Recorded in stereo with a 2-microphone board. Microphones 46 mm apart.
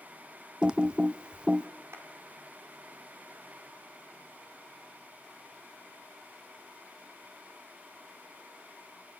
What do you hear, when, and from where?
0.6 s typing on a keyboard: 20° right (ahead or behind), 0.6 m
1.9 s a clap: 85° right, 4.5 m